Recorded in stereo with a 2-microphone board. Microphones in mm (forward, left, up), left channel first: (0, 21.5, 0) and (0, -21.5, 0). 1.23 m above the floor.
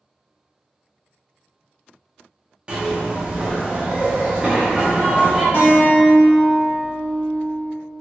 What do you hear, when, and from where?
2.7 s a zipper: 25° right (ahead or behind), 0.7 m
5.5 s a guitar: 50° left (ahead or behind), 1.1 m